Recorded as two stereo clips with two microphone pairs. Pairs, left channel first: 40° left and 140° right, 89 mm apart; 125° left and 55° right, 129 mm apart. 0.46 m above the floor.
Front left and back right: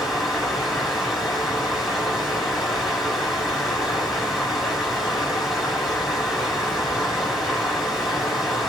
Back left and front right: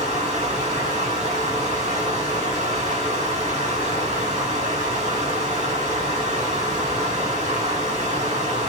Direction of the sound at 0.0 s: 50° right.